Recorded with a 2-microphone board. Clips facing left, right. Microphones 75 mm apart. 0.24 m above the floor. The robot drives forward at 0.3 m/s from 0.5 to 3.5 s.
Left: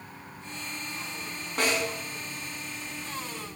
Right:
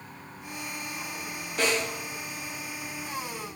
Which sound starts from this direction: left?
A snare drum, at 1.6 s.